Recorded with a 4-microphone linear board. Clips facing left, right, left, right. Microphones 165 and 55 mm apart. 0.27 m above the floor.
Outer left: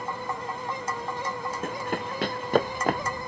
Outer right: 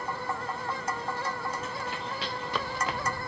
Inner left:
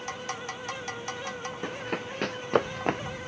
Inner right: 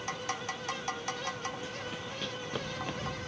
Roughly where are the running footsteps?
Left.